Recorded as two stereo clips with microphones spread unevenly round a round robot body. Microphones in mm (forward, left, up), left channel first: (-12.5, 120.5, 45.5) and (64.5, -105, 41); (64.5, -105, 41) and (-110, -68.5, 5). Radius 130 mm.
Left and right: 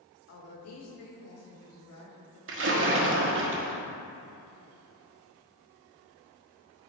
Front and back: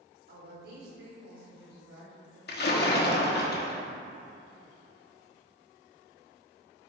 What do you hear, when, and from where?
0.3 s a woman speaking: 130° left, 2.5 m; by 2.4 s 135° left, 4 m
2.5 s a splash: 40° right, 1.4 m